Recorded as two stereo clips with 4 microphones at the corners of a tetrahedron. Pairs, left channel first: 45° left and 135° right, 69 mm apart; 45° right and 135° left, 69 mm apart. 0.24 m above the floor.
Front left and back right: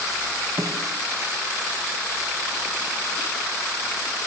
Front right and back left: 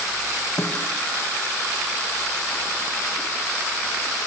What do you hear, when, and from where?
0.6 s a snare drum: 105° right, 7 m